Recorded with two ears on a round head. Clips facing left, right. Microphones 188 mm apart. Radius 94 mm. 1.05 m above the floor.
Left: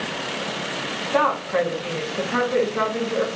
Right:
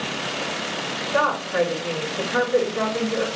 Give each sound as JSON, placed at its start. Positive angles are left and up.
{"t": 1.1, "sound": "a woman speaking", "side_deg": 70, "distance_m": 1.7}